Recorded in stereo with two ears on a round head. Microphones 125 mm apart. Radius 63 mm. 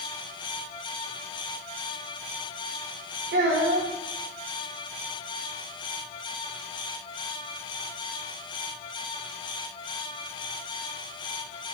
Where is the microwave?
No microwave in this recording.